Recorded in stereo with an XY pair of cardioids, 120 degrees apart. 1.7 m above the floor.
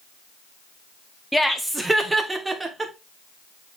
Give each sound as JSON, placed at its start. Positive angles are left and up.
{"t": 1.3, "sound": "laughter", "azimuth_deg": 0, "distance_m": 1.7}